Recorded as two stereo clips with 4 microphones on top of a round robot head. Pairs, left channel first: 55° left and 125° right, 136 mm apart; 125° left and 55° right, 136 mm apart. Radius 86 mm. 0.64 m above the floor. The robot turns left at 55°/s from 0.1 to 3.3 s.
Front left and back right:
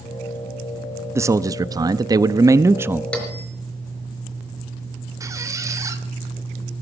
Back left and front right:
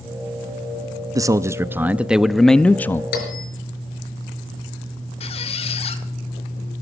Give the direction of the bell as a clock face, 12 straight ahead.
7 o'clock.